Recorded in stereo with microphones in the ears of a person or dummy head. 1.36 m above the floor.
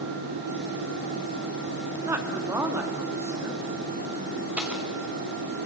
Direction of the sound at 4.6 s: 10° right (ahead or behind).